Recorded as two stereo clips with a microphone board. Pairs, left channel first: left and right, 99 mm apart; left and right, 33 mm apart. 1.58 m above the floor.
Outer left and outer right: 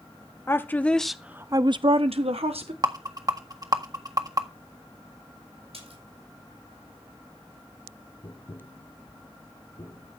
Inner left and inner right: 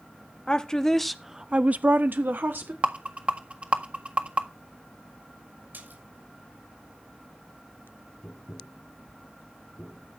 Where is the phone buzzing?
I don't hear a phone buzzing.